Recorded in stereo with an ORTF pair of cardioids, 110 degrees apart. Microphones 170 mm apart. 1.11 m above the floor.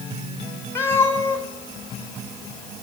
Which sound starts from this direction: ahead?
A cat meowing, at 0.8 s.